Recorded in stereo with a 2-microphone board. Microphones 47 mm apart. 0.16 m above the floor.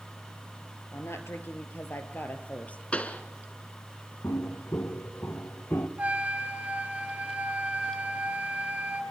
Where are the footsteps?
75° left (ahead or behind), 3 m; by 5.9 s 60° left (ahead or behind), 2.5 m.